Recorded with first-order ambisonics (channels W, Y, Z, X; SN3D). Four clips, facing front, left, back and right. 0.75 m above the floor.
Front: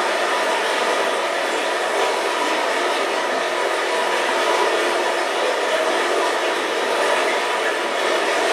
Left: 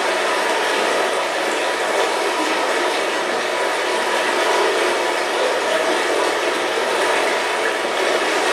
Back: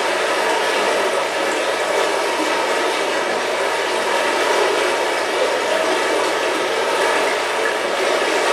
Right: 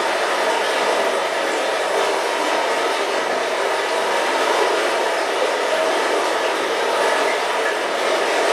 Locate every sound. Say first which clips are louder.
0.0 s running water: even, back 1 dB; 130° left, 0.7 m